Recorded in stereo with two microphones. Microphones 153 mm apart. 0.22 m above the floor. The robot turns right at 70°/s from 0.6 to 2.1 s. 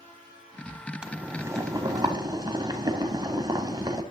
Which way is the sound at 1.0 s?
5° right (ahead or behind).